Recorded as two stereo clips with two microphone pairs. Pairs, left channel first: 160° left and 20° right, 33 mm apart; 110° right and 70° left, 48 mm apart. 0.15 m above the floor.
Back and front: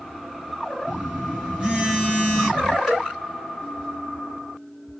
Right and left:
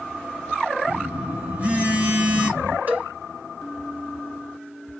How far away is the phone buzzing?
About 1.9 m.